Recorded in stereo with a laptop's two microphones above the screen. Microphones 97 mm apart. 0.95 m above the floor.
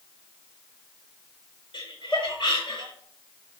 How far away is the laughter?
About 4.5 m.